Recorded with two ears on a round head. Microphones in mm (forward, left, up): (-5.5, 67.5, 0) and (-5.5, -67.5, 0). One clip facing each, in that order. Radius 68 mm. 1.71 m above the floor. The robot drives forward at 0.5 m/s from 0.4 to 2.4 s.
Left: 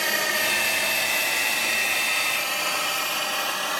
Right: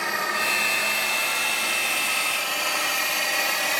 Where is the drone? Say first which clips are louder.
Even; 30° left (ahead or behind); by 3.8 s 15° right (ahead or behind).